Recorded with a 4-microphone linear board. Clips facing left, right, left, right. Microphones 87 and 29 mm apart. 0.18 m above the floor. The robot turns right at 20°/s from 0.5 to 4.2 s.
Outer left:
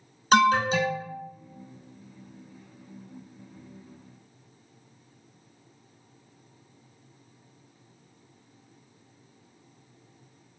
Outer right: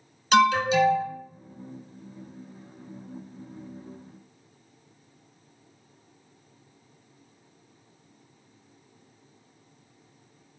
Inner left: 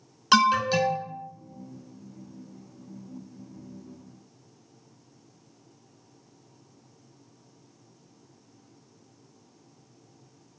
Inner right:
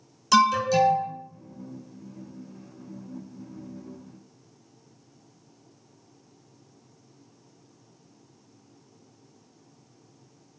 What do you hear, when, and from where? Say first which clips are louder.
0.3 s an alarm: outer right 1 dB, inner right 1 dB; 45° left (ahead or behind), 1.2 m; by 1.1 s 50° left (ahead or behind), 1.2 m